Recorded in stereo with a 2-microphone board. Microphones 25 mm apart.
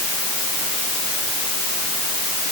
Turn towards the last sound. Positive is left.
No sound to turn to.